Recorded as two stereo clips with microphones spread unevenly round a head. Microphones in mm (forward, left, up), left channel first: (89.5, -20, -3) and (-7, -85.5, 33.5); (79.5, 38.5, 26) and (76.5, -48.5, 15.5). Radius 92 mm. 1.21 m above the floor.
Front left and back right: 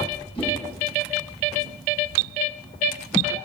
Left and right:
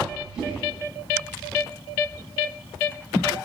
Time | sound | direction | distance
0.3 | a whoosh | 10° right | 4.5 m